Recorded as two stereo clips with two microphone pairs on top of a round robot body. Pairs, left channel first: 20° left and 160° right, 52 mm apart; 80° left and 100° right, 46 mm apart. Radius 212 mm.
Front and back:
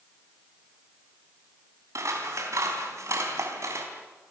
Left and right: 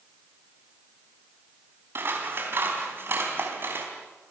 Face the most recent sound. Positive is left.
turn(degrees=-140)